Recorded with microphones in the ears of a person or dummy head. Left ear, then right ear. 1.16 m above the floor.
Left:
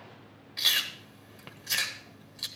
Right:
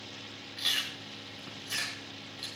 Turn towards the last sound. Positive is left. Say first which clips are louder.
# left 4 dB
turn(degrees=15)  # may be behind; listen again after turning